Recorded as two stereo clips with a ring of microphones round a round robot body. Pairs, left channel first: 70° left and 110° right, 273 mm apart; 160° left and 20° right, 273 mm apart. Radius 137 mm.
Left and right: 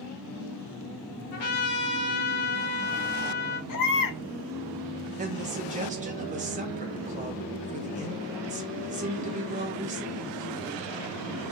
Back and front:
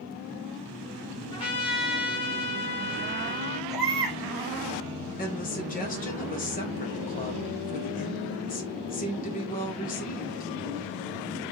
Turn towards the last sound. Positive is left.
turn(degrees=-160)